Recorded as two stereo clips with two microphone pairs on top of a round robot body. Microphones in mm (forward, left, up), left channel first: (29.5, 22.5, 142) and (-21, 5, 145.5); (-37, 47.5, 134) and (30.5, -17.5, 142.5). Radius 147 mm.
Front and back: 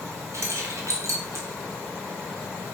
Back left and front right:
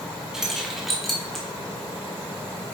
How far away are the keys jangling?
About 1.3 m.